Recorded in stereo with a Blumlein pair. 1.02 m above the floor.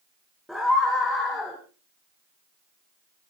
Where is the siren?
No siren in this recording.